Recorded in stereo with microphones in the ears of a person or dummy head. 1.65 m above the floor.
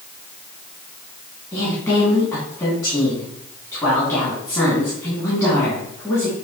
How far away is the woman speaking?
About 3 m.